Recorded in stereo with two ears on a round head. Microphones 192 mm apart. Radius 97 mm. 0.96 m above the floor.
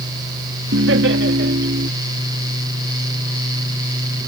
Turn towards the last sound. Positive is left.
turn(degrees=-45)  # may be behind; listen again after turning